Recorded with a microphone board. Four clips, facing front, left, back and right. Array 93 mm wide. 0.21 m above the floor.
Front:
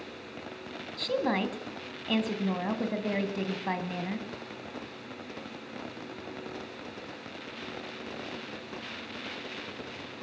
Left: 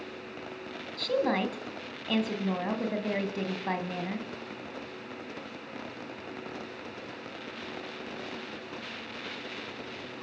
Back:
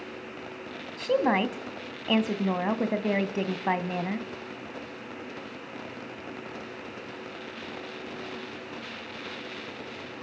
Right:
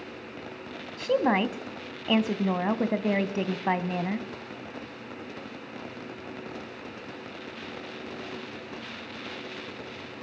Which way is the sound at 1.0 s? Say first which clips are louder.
Right 4 dB, back 5 dB; 130° right.